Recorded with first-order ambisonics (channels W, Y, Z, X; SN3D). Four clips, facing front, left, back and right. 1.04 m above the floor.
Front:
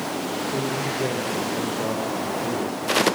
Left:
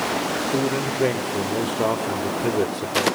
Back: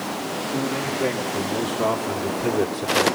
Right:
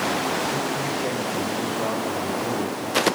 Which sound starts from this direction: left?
A man speaking, at 0.5 s.